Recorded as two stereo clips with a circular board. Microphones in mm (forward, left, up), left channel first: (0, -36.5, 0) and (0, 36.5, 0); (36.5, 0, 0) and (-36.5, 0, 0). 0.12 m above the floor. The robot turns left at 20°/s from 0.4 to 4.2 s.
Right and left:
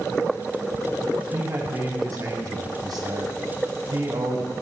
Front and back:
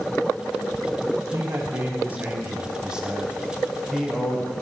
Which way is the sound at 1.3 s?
135° left.